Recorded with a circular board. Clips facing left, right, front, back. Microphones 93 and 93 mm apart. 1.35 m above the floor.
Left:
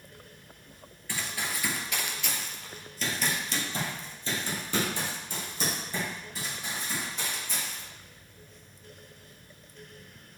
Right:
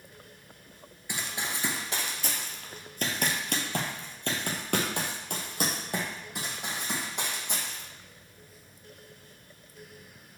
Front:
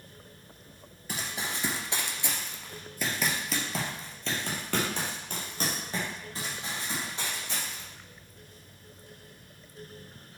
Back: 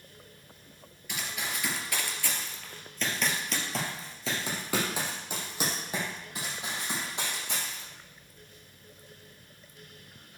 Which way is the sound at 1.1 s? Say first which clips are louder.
Even, front 1 dB; 25° right.